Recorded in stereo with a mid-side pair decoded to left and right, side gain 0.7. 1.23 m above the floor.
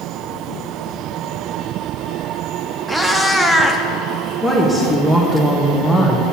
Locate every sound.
2.9 s a cat meowing: 5° right, 1.1 m
4.4 s a woman speaking: 5° right, 1.7 m